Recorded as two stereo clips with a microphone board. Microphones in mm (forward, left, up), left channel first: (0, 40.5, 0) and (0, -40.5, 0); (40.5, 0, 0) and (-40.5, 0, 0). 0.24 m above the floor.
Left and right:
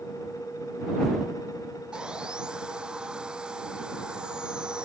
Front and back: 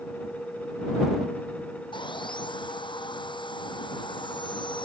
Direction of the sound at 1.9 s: 10° right.